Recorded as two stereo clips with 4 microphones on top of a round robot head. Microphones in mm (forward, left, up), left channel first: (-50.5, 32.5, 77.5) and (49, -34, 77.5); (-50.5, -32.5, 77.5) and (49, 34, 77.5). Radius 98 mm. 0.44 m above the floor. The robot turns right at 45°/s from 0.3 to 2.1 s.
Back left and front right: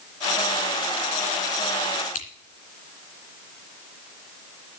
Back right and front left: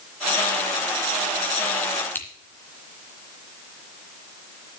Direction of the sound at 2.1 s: 140° left.